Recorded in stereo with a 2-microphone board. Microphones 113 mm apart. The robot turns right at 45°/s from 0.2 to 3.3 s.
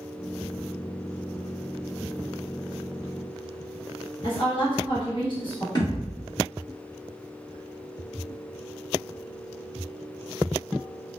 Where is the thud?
35° left (ahead or behind), 1.0 m.